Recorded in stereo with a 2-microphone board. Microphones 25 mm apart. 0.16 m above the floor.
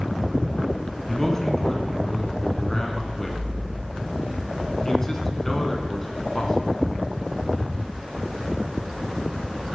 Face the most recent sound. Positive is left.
turn(degrees=20)  # may be behind; listen again after turning